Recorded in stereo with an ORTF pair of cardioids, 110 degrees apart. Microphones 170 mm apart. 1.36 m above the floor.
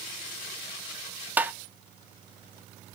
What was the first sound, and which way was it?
Tapping, 10° right.